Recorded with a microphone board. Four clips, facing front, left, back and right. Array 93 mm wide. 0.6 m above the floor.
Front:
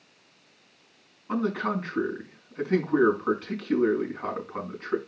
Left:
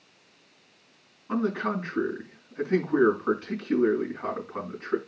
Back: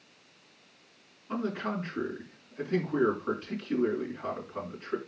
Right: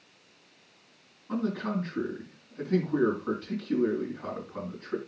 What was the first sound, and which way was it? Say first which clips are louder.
A man speaking: left 3 dB, front 5 dB; 15° left.